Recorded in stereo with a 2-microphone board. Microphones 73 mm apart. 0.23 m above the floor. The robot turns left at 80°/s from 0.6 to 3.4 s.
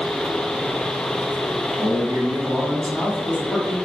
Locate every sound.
1.8 s a man speaking: 100° right, 1.3 m; by 3.8 s 135° left, 1.3 m